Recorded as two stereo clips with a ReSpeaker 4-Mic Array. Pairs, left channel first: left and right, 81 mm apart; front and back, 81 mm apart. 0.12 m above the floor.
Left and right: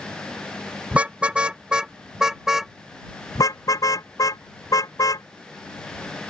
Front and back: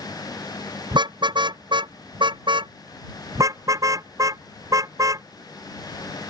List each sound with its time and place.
0.9 s a car horn: 165° right; by 2.7 s 175° right
3.4 s a car horn: 135° left